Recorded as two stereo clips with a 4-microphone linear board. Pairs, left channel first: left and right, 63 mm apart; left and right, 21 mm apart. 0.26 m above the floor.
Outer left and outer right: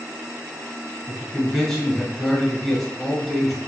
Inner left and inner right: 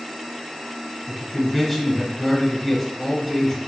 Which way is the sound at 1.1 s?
5° left (ahead or behind).